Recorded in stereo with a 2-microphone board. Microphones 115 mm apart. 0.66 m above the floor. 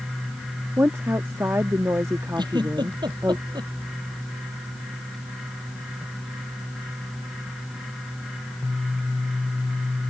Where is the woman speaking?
20° right (ahead or behind).